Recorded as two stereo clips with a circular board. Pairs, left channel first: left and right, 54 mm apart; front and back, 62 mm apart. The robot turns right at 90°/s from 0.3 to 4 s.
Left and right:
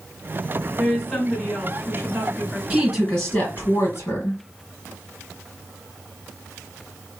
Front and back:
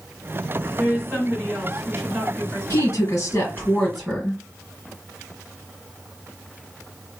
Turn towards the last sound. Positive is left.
turn(degrees=100)